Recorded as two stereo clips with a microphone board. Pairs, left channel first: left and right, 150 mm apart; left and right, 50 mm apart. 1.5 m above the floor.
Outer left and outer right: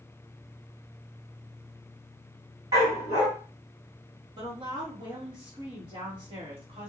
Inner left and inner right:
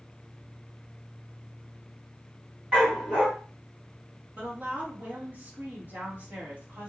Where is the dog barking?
20° right (ahead or behind), 3 m.